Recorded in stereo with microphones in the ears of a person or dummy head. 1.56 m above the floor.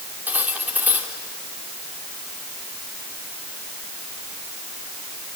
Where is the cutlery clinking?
10° right (ahead or behind), 2.5 m.